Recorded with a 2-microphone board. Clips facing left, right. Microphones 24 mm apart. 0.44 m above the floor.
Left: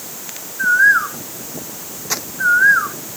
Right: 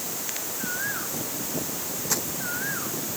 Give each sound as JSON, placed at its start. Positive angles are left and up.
{"t": 0.6, "sound": "a bird", "side_deg": 75}
{"t": 2.1, "sound": "crumpling", "side_deg": 45}